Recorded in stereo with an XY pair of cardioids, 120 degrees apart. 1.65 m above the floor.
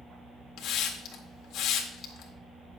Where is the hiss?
65° left, 1.7 m.